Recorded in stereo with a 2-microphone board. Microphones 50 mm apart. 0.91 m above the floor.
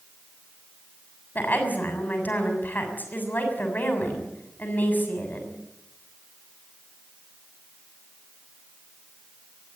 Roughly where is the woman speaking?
Left.